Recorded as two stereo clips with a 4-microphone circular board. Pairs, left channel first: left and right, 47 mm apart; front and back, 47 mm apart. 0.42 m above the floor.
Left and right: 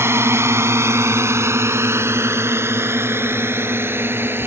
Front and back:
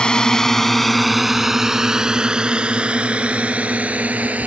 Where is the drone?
70° right; by 4.5 s 125° right.